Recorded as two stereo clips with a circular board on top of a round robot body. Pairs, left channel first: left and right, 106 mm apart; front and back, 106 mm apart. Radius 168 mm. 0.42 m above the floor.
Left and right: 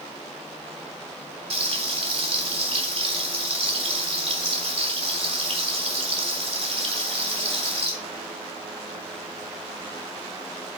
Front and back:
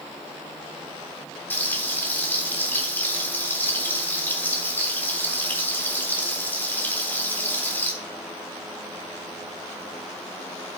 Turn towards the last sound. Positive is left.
turn(degrees=-70)